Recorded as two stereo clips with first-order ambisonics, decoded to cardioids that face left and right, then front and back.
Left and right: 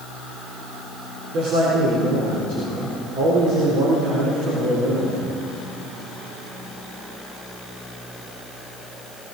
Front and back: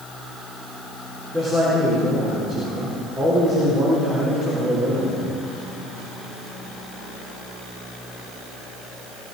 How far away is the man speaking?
About 4 m.